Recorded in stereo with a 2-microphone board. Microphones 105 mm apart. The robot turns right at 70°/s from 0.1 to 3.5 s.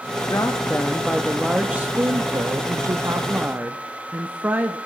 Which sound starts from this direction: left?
A woman speaking, at 0.3 s.